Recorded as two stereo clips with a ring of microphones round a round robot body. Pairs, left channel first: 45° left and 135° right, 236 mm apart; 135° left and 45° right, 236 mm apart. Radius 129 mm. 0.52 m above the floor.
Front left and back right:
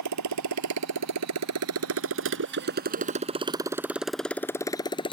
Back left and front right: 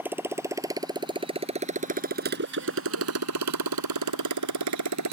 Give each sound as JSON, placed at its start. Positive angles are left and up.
{"t": 0.0, "sound": "a motorcycle", "azimuth_deg": -130}